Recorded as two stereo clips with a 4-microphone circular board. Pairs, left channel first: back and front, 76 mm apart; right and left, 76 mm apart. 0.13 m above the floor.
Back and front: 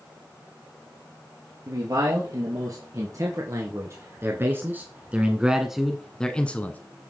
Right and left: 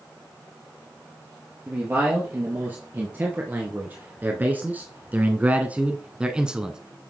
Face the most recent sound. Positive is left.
turn(degrees=160)